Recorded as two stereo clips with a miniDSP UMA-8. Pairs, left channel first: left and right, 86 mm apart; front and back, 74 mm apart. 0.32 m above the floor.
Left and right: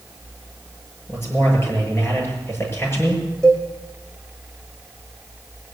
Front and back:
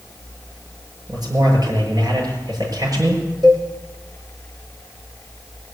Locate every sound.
1.1 s a man speaking: 150° left, 6.5 m
3.4 s a cowbell: 170° left, 4 m